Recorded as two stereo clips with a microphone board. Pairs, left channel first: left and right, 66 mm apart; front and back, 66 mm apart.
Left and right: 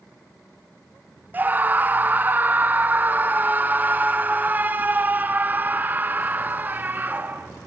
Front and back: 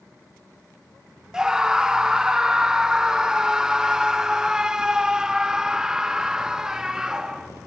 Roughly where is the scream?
Right.